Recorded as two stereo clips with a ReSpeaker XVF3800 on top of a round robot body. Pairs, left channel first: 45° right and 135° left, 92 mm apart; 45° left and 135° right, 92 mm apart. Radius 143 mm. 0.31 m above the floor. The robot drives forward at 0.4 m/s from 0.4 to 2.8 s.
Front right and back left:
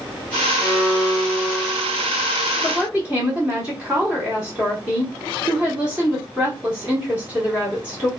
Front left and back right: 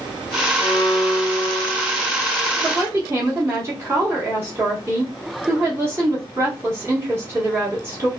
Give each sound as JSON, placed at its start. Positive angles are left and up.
{"t": 0.6, "sound": "a violin", "azimuth_deg": 45, "distance_m": 1.4}
{"t": 2.6, "sound": "a woman speaking", "azimuth_deg": -165, "distance_m": 1.3}